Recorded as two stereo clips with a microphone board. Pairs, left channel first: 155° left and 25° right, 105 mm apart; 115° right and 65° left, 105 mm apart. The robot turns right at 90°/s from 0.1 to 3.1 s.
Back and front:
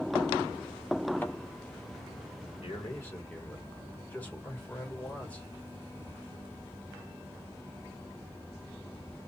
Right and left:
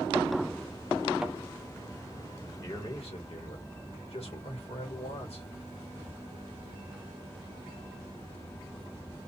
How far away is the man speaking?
About 1.5 m.